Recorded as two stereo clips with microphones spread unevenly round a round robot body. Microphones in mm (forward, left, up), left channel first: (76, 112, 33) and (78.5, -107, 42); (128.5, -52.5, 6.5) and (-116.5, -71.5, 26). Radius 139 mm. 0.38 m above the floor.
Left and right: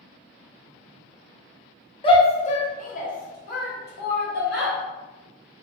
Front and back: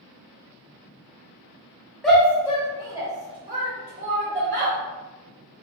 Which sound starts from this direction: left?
A shout, at 2.0 s.